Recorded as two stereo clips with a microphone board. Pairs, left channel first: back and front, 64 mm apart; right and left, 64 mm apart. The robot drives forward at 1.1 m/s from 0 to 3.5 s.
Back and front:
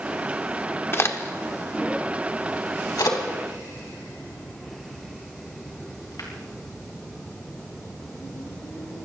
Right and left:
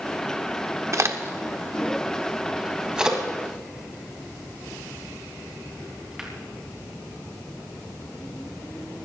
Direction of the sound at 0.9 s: 130° left.